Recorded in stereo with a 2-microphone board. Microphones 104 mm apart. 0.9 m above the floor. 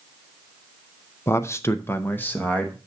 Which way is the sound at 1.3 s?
25° left (ahead or behind).